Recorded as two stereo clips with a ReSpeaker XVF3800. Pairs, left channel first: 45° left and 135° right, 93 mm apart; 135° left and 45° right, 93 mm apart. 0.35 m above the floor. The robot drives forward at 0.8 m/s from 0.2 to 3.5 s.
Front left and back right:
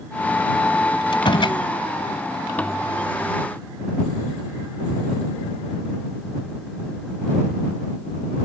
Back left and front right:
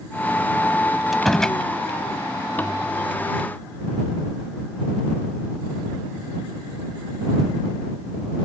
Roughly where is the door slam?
Ahead left.